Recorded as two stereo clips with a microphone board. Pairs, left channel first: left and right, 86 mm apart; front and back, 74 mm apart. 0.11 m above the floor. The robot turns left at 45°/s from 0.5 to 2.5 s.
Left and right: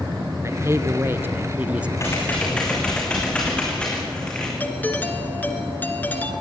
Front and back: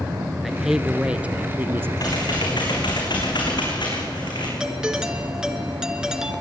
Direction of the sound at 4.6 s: 110° left.